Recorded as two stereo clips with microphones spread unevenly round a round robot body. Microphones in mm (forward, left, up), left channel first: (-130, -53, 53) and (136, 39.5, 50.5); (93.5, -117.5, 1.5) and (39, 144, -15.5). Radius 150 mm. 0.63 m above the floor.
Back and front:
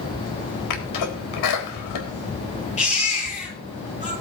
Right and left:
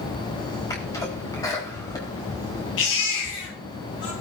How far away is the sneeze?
About 4 m.